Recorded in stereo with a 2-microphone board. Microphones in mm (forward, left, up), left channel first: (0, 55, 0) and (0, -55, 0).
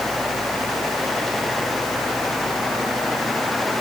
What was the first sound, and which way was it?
Only background noise.